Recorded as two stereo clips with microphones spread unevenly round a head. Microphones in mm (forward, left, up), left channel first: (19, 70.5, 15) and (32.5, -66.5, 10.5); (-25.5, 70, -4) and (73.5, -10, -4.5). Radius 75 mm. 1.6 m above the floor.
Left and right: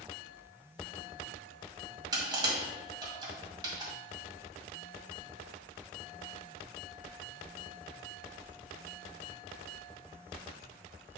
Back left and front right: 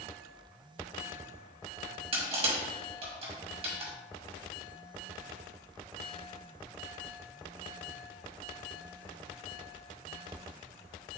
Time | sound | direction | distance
2.1 | crushing | 30° right | 1.9 m